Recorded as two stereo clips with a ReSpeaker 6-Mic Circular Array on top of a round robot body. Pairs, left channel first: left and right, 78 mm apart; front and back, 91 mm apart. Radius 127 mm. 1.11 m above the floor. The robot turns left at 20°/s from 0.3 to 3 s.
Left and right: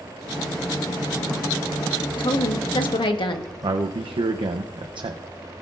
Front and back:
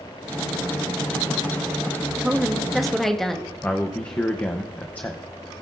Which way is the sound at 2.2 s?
105° left.